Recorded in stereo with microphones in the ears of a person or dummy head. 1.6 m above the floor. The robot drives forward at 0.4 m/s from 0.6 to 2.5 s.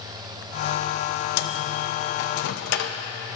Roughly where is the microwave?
Left.